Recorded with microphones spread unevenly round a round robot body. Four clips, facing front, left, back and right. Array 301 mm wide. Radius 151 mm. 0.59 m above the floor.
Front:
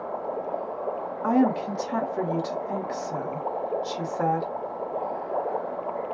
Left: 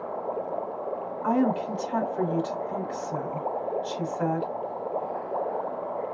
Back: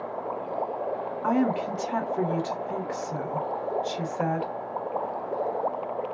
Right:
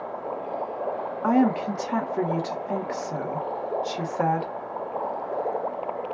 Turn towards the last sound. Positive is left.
turn(degrees=-85)